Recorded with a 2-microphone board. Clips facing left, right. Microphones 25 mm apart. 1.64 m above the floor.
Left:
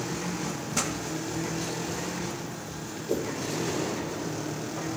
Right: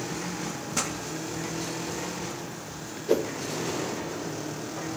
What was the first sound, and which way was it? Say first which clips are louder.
A pop: even; centre (ahead or behind).